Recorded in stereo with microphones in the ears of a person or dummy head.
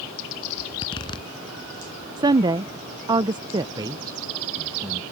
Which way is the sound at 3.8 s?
20° right (ahead or behind).